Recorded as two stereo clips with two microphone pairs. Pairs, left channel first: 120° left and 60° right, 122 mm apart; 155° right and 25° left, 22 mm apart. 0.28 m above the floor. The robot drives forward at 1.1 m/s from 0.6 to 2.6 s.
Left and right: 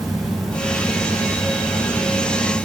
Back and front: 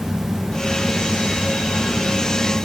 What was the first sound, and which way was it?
Only background noise.